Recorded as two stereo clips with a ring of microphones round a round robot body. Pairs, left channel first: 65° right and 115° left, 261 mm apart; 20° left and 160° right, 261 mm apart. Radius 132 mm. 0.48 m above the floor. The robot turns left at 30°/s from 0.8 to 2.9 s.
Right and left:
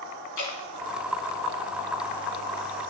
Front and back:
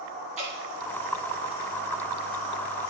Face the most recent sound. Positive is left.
turn(degrees=-155)